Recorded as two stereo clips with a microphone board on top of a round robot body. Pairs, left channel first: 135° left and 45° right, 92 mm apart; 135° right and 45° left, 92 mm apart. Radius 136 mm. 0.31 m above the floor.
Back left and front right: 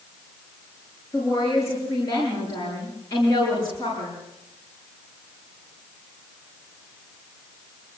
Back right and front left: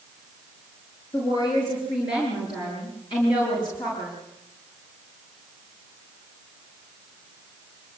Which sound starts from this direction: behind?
A woman speaking, at 1.1 s.